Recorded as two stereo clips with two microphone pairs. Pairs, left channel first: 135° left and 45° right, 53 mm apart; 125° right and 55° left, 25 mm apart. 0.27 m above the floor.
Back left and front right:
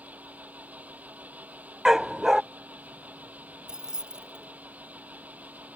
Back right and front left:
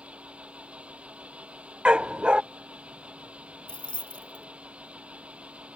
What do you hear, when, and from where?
0.0 s an engine running: 20° left
1.9 s a dog barking: 40° left
3.7 s keys jangling: 115° right